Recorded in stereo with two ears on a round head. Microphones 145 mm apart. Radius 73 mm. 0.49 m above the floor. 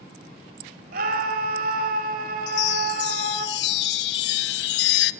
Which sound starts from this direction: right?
A scream, at 0.9 s.